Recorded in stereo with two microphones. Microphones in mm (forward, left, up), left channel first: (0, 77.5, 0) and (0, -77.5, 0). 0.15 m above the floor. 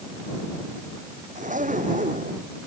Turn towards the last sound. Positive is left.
turn(degrees=-55)  # may be behind; listen again after turning